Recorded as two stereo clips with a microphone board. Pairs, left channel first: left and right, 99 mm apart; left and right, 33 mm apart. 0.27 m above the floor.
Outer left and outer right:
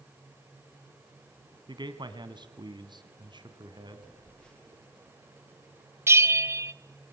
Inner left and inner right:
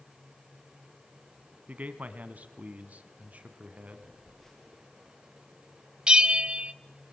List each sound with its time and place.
1.7 s a man speaking: 50° right (ahead or behind), 2.5 m
4.0 s a phone buzzing: 10° left (ahead or behind), 4.5 m
6.1 s a bell: 25° right (ahead or behind), 0.7 m